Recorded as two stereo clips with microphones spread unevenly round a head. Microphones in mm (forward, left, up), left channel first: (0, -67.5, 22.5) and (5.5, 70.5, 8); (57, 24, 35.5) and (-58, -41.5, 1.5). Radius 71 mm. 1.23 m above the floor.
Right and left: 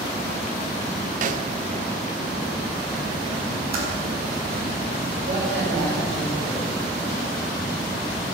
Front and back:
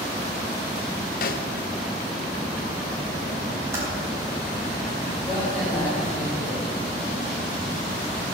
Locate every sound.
1.2 s a snare drum: 60° left, 0.8 m
3.7 s typing on a keyboard: 135° left, 4 m
5.3 s a man speaking: 120° left, 5 m